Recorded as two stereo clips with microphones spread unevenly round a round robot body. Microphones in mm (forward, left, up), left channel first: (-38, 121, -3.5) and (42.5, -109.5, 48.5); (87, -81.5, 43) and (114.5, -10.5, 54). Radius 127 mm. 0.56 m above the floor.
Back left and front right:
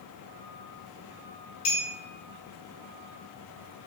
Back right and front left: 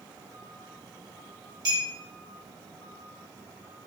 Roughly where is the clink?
Left.